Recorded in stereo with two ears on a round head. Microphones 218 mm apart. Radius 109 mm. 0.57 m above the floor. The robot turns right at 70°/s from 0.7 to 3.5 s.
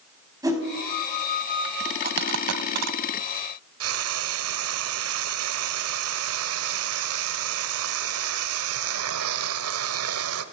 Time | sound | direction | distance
0.4 | a whoosh | 15° right (ahead or behind) | 4.5 m
2.0 | a dropped coin | 35° right (ahead or behind) | 0.8 m
3.8 | frying | 65° right (ahead or behind) | 1.3 m